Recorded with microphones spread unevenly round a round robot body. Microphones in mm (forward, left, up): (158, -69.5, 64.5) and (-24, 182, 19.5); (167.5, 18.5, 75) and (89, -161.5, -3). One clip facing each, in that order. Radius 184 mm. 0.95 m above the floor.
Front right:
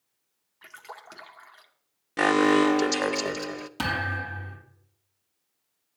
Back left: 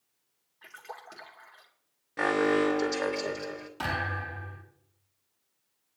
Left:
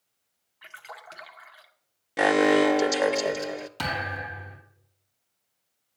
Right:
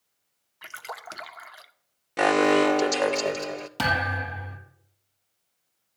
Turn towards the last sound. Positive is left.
turn(degrees=-90)